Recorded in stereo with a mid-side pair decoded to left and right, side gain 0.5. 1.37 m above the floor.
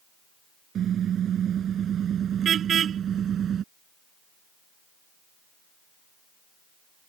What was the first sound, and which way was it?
A car horn, 55° right.